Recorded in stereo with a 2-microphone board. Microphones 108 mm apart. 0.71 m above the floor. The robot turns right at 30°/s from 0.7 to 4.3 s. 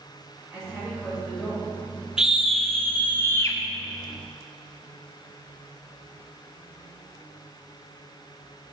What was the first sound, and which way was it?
A woman speaking, 10° right.